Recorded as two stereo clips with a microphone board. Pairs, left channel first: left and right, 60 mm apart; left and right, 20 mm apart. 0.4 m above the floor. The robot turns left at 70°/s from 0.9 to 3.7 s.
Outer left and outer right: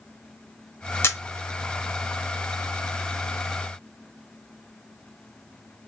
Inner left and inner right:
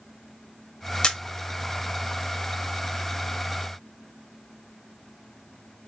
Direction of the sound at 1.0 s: 45° left (ahead or behind).